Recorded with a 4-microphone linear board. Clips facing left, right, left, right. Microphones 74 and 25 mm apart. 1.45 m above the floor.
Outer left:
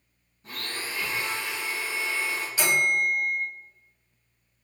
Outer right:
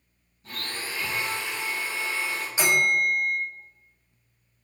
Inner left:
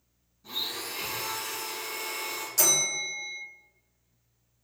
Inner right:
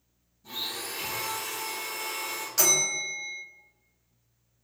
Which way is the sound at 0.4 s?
25° left (ahead or behind).